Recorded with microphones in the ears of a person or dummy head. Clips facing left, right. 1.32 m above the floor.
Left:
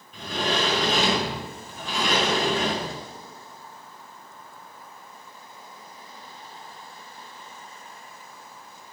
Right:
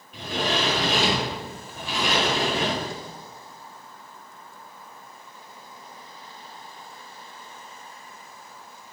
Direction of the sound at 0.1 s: 5° right (ahead or behind).